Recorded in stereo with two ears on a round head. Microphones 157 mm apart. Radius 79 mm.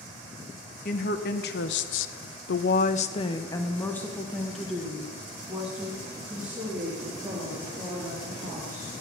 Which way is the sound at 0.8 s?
50° left (ahead or behind).